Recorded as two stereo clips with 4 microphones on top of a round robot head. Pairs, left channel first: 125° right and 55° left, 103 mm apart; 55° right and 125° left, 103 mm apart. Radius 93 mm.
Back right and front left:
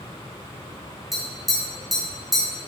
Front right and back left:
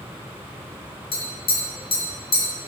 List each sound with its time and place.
1.1 s tapping: 35° right, 1.7 m